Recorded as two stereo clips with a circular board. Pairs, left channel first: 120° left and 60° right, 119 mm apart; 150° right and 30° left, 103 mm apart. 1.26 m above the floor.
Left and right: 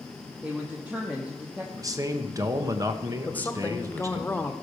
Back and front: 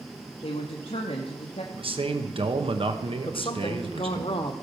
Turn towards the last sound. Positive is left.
turn(degrees=-165)